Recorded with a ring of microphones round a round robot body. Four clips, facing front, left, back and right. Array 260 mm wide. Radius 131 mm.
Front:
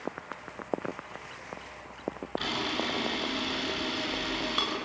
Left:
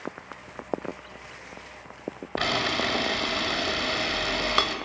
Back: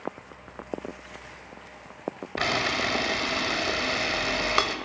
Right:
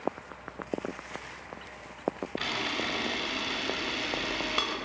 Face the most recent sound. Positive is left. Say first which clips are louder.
# left 6 dB, back 6 dB
turn(degrees=140)